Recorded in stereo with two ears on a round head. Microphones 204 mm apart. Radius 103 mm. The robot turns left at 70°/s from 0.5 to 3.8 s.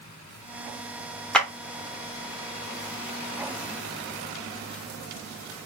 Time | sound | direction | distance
1.3 | a clap | 5° left (ahead or behind) | 1.0 m